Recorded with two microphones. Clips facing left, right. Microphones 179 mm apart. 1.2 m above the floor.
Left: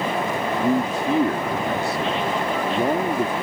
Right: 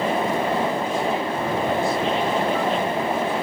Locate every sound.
0.6 s a man speaking: 75° left (ahead or behind)